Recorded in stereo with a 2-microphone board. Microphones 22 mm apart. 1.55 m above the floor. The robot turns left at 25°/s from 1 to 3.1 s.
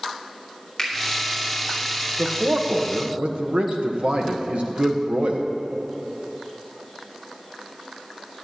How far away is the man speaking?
About 1.5 m.